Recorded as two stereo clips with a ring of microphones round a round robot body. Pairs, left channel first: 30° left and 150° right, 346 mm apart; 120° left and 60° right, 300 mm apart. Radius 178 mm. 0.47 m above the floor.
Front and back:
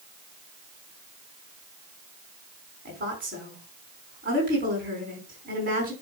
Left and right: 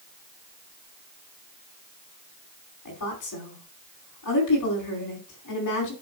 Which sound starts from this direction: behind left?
A woman speaking, at 2.9 s.